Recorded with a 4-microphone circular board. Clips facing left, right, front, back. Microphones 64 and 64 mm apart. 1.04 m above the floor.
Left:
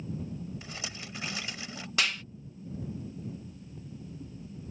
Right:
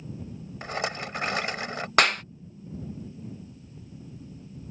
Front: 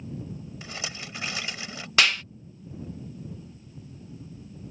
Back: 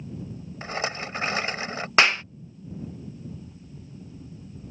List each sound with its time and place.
0.6 s a rattle: 130° right
2.0 s a clap: 120° right